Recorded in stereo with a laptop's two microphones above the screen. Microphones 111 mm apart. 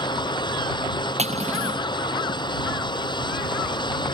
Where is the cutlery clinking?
85° right.